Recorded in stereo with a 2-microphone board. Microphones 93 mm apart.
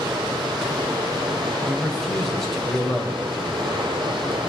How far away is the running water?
About 5 m.